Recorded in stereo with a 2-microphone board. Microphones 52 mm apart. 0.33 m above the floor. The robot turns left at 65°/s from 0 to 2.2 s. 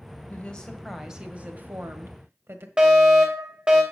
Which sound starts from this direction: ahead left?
A woman speaking, at 0.3 s.